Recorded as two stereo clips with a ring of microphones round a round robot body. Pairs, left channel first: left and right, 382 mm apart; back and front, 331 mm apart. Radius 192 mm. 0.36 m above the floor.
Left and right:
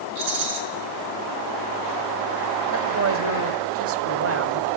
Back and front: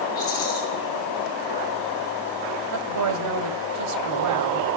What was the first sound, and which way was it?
A rattle, 100° right.